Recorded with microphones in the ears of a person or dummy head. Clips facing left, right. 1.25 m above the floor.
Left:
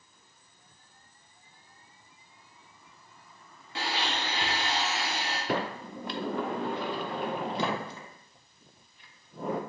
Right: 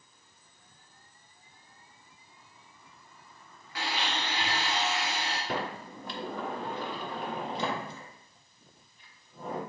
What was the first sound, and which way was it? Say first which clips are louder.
A blender: left 1 dB; 25° left (ahead or behind).